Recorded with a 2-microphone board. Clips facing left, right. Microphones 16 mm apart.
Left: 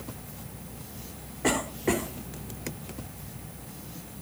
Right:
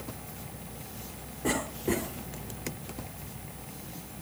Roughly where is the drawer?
I don't hear a drawer.